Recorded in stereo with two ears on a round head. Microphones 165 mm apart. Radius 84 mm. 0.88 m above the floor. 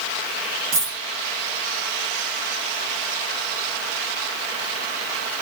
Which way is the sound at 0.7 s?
50° right (ahead or behind).